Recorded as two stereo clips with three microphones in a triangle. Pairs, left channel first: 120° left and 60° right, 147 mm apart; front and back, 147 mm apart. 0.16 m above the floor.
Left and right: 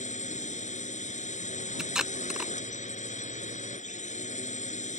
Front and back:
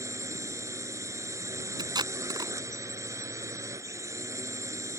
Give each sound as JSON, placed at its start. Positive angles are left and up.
{"t": 0.0, "sound": "a drone", "azimuth_deg": 115}
{"t": 1.8, "sound": "tape being pulled", "azimuth_deg": -145}